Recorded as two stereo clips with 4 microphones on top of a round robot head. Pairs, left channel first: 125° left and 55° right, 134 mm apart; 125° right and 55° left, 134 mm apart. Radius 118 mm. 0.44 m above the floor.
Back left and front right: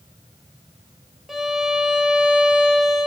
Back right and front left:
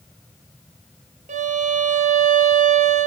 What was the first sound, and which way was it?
A violin, 35° left.